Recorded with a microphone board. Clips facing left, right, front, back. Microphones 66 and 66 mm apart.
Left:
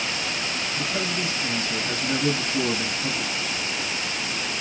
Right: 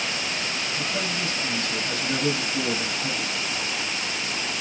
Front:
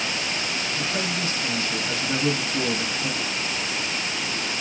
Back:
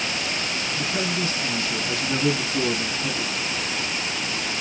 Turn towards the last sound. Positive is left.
turn(degrees=30)